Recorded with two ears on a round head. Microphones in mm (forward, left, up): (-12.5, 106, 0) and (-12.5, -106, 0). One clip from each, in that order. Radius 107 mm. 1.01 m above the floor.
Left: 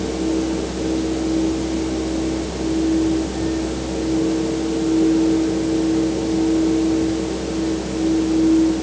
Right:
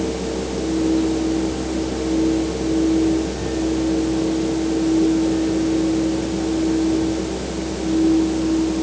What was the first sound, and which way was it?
Only background noise.